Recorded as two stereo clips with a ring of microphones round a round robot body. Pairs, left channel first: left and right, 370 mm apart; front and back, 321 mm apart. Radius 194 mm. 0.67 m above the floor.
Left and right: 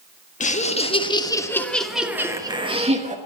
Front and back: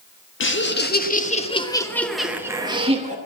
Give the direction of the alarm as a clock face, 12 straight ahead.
No alarm in this recording.